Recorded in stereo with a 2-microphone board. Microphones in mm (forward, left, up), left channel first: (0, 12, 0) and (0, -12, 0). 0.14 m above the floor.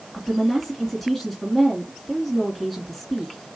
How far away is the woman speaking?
About 2 m.